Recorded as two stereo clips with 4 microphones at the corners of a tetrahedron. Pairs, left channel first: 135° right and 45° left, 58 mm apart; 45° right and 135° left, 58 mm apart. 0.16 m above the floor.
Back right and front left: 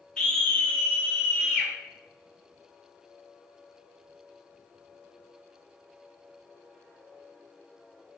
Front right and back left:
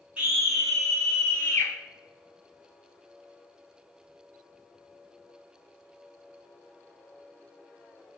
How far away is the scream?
About 1.2 m.